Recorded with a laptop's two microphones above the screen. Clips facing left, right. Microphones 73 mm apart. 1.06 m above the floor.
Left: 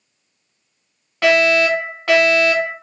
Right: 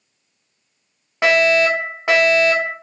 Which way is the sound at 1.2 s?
20° right (ahead or behind).